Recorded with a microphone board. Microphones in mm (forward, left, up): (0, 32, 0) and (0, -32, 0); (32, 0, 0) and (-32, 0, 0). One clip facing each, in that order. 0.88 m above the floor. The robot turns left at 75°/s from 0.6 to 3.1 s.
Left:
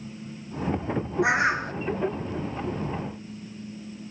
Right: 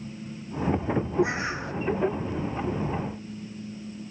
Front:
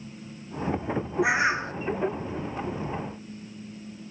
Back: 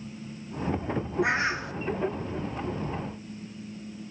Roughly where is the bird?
Left.